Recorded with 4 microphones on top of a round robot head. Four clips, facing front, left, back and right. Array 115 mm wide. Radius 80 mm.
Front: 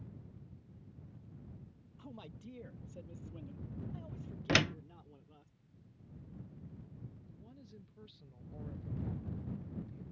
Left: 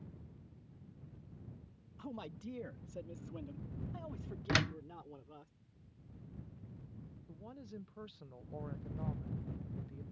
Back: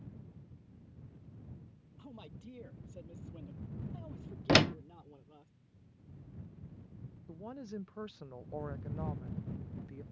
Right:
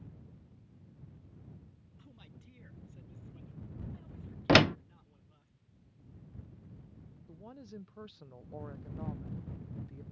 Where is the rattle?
I don't hear a rattle.